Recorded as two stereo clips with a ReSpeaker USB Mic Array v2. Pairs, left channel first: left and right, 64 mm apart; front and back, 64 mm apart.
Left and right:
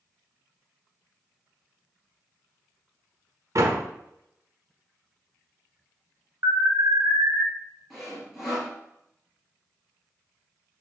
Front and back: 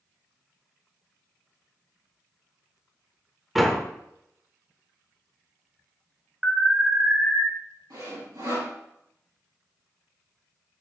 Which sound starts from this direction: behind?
Sawing, at 7.9 s.